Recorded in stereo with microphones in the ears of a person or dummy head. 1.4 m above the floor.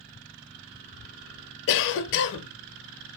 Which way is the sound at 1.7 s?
65° left (ahead or behind).